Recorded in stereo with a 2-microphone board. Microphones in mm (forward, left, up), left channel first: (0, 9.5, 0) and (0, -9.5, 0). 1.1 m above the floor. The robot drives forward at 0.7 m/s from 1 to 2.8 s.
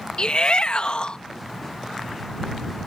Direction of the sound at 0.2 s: 60° left (ahead or behind).